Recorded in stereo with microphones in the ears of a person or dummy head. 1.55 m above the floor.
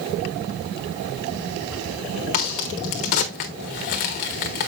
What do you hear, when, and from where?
2.3 s a crack: 30° left (ahead or behind), 0.9 m